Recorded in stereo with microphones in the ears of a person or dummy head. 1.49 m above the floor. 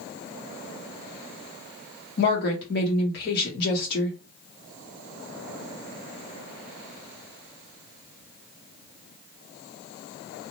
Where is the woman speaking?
50° left (ahead or behind), 1.3 m.